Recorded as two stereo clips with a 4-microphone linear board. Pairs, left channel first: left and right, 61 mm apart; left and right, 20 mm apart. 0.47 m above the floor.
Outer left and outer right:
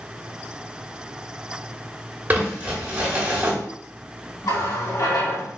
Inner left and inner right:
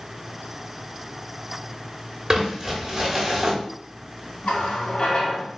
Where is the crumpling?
30° right (ahead or behind), 1.1 m.